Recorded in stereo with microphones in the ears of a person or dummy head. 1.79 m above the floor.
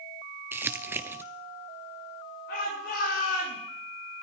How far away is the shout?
About 7 m.